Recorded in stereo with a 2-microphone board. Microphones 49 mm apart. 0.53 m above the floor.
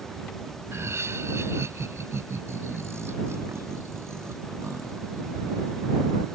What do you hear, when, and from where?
0.7 s laughter: 75° right (ahead or behind)